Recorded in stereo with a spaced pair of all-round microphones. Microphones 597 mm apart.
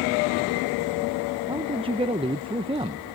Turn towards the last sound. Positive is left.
turn(degrees=-10)  # may be behind; listen again after turning